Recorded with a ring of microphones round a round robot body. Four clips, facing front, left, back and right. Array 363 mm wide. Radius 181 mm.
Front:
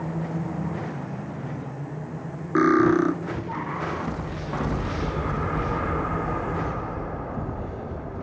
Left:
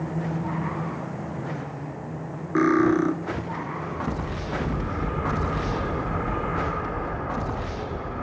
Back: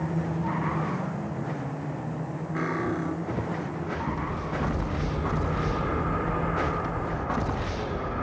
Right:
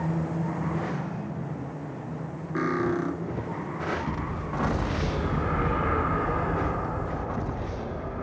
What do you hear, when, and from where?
2.5 s cutlery clinking: 25° left, 1.0 m